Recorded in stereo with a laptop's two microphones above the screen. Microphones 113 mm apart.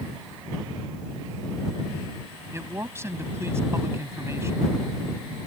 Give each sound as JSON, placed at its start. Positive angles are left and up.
{"t": 2.5, "sound": "a man speaking", "side_deg": -25}